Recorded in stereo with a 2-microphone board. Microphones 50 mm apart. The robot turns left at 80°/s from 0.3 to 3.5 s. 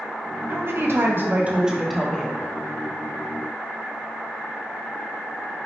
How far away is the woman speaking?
About 0.6 m.